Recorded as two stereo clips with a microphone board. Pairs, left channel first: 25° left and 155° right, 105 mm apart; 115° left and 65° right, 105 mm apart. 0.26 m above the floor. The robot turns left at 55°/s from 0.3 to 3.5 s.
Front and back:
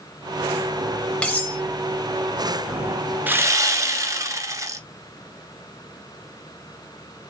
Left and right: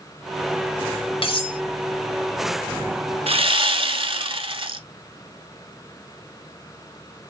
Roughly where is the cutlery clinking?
Left.